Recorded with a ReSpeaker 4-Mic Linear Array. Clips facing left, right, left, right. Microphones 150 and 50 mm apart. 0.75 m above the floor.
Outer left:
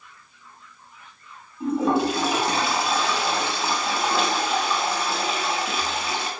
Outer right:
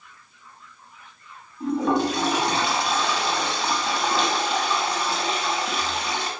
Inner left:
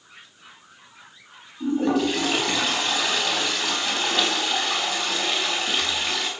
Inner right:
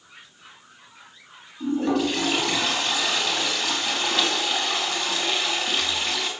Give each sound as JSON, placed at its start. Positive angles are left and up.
{"t": 1.6, "sound": "a toilet flushing", "side_deg": 5, "distance_m": 5.5}